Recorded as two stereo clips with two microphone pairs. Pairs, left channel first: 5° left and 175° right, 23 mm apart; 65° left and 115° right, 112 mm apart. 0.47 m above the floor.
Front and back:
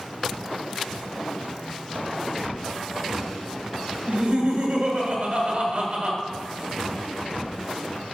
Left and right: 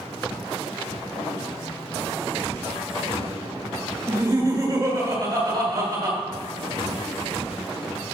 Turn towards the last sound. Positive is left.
turn(degrees=-170)